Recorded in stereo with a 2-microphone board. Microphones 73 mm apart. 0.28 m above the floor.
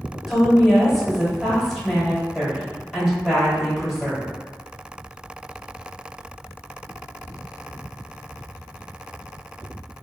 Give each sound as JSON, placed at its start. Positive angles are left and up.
{"t": 0.3, "sound": "a woman speaking", "side_deg": 0, "distance_m": 1.2}